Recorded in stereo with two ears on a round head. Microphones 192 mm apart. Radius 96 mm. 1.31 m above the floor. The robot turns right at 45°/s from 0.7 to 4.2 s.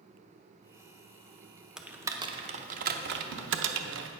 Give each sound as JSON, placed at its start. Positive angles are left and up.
{"t": 1.8, "sound": "typing on a keyboard", "side_deg": 0, "distance_m": 0.7}